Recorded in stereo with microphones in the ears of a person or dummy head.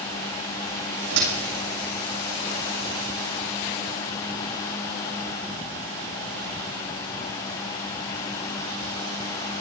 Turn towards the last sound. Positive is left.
turn(degrees=-65)  # may be behind; listen again after turning